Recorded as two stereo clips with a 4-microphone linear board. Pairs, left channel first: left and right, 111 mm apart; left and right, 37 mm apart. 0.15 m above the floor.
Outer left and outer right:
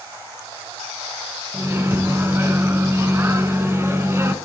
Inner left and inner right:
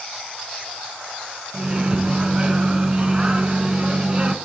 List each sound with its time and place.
1.5 s a microwave: 25° right (ahead or behind), 1.0 m